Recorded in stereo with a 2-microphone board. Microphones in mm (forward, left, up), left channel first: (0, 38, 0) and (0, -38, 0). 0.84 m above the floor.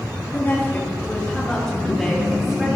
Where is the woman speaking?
30° left (ahead or behind), 4.5 m; by 2.7 s 5° right (ahead or behind), 5.5 m.